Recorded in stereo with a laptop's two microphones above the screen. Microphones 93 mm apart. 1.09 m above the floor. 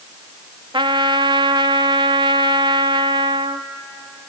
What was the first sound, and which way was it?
A trumpet, 55° right (ahead or behind).